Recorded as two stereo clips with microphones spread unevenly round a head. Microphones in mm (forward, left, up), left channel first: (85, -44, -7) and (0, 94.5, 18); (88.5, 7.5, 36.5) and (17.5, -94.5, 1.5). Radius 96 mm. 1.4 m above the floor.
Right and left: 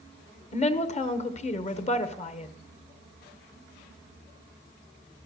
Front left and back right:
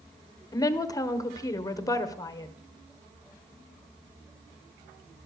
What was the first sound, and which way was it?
A woman speaking, 10° right.